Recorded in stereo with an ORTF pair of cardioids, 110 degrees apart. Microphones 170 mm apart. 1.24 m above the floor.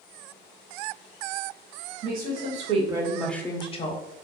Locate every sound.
2.0 s a woman speaking: 60° right, 0.9 m; by 4.0 s 45° left, 0.7 m